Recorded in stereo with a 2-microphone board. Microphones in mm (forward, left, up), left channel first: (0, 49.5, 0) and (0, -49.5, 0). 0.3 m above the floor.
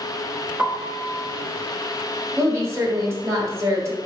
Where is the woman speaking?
25° right (ahead or behind), 1.4 m.